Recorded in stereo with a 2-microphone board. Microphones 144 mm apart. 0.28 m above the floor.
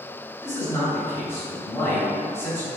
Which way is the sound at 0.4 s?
15° left (ahead or behind).